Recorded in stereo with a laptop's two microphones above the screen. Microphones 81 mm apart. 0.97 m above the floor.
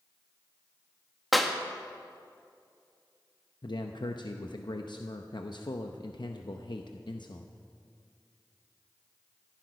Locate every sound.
1.3 s a clap: centre (ahead or behind), 1.2 m
3.6 s a man speaking: 65° left (ahead or behind), 0.7 m